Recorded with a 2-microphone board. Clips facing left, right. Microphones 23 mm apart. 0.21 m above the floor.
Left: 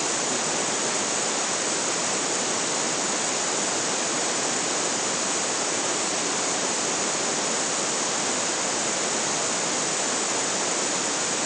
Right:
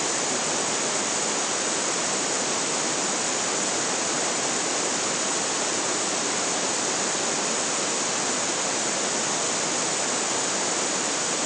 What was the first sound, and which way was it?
Only background noise.